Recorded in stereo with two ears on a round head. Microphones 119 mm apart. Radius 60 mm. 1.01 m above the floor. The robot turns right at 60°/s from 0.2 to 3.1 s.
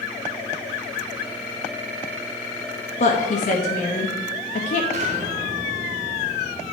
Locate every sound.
3.0 s a woman speaking: 50° left (ahead or behind), 1.0 m; by 4.8 s 55° left (ahead or behind), 1.0 m
4.9 s an explosion: 60° right (ahead or behind), 1.7 m